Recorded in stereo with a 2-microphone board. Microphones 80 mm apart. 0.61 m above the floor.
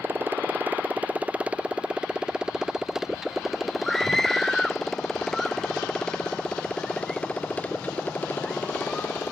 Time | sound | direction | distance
0.0 | a motorcycle | 25° right (ahead or behind) | ?
3.8 | a scream | 5° left (ahead or behind) | ?